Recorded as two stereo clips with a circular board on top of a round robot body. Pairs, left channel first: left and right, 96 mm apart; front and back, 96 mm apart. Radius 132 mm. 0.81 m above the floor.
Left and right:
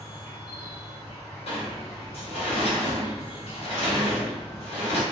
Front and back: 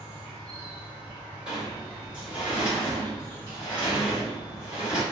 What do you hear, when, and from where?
0.0 s an insect: 70° left, 1.6 m
1.5 s a sliding door: 100° left, 1.2 m